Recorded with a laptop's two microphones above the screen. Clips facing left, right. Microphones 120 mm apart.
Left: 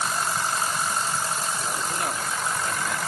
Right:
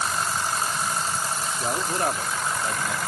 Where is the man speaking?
45° right (ahead or behind), 2.5 m; by 3.0 s 20° right (ahead or behind), 2.0 m.